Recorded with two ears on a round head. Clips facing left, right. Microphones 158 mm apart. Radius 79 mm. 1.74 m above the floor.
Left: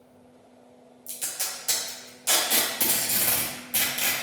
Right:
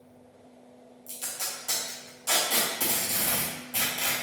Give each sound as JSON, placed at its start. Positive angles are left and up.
{"t": 1.1, "sound": "tape being pulled", "side_deg": 20, "distance_m": 0.5}